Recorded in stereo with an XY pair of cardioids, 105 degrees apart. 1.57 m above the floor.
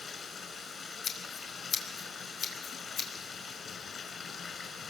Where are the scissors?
50° left, 4.5 m.